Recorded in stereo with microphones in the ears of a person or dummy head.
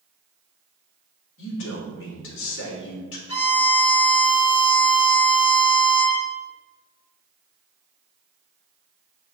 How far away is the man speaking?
About 3 m.